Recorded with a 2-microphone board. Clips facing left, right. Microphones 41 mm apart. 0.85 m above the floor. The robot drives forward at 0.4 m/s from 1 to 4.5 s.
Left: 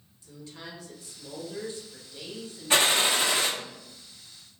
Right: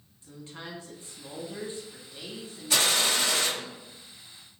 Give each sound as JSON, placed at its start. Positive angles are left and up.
{"t": 0.2, "sound": "a woman speaking", "side_deg": -35, "distance_m": 1.2}
{"t": 2.7, "sound": "a gunshot", "side_deg": 35, "distance_m": 0.6}